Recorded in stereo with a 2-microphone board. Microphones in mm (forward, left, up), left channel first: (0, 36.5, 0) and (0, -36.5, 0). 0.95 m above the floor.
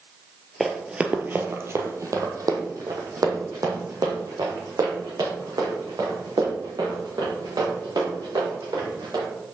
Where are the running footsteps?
Centre (ahead or behind), 1.0 m; by 9.2 s 80° right, 6.5 m.